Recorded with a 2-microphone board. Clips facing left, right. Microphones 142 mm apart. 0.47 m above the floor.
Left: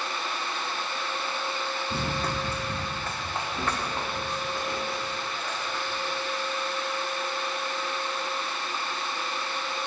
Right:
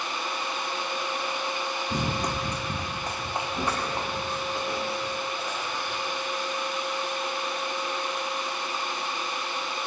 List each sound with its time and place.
1.9 s running footsteps: 15° right (ahead or behind), 0.9 m